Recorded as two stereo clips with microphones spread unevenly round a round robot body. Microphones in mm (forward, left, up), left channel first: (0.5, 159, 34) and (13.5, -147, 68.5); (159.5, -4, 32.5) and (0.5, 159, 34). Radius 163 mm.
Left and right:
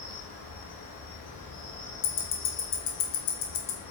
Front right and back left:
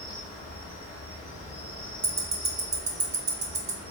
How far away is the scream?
I don't hear a scream.